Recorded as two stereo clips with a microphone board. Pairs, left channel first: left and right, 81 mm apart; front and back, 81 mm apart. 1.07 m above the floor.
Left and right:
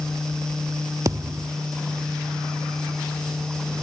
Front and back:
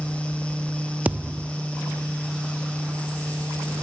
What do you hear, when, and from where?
1.1 s a thud: 115° right, 0.7 m